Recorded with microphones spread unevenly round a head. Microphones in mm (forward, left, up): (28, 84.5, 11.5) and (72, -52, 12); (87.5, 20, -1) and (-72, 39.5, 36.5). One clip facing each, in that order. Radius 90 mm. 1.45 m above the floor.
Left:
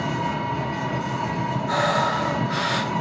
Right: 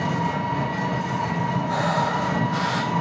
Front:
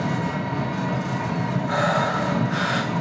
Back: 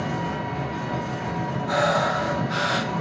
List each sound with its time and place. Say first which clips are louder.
0.0 s an engine running: right 1 dB, front 2 dB; 30° left, 1.7 m
1.7 s breathing: left 3 dB, back 2 dB; 120° left, 0.8 m